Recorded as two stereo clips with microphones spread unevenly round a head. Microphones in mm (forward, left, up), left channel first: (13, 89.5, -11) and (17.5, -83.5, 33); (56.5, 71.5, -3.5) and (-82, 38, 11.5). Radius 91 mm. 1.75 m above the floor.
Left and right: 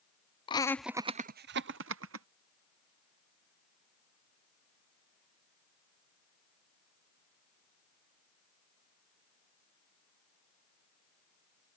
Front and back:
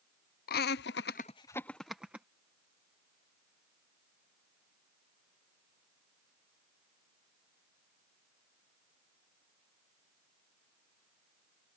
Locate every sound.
0.5 s laughter: 30° left; by 2.3 s 85° right